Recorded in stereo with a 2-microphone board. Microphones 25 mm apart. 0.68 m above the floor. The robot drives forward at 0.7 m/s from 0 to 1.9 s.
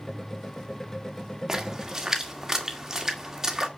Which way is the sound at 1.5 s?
20° right (ahead or behind).